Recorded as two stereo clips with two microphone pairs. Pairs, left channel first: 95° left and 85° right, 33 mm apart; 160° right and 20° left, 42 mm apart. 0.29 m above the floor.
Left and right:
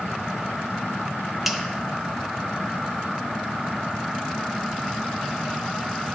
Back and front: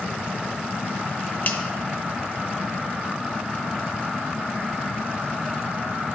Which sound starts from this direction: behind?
A finger snap, at 1.4 s.